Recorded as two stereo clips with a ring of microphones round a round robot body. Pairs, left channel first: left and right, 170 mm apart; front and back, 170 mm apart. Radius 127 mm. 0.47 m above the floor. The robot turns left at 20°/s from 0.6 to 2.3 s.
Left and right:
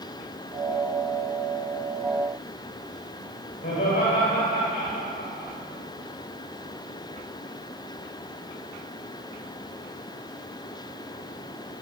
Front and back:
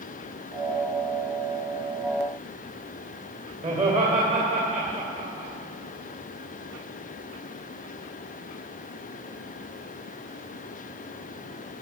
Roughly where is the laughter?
Behind left.